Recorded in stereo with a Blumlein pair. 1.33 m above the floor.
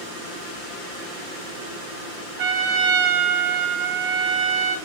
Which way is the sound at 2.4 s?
50° right.